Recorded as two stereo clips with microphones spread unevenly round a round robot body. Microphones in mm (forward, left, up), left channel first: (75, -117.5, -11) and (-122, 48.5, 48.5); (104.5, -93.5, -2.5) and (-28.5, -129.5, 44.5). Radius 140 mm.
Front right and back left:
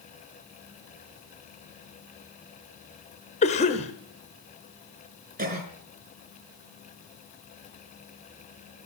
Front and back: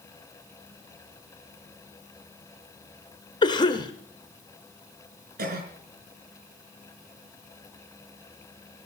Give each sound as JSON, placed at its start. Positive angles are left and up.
{"t": 3.4, "sound": "a cough", "azimuth_deg": 5, "distance_m": 1.1}
{"t": 5.4, "sound": "a cough", "azimuth_deg": -160, "distance_m": 5.0}